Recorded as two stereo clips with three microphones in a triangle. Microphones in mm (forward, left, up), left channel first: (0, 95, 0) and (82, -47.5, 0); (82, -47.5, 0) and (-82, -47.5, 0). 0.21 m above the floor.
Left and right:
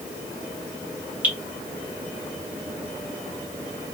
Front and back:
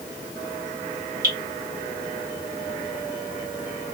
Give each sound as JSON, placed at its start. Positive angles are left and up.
{"t": 1.2, "sound": "dripping", "azimuth_deg": -135, "distance_m": 1.6}